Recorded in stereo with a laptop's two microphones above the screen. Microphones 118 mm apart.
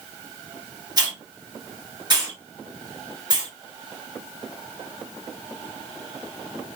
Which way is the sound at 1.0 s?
35° right (ahead or behind).